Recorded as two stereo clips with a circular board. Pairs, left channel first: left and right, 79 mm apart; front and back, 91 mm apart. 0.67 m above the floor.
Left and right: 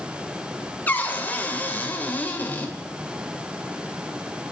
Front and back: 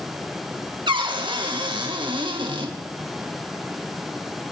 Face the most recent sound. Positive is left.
turn(degrees=155)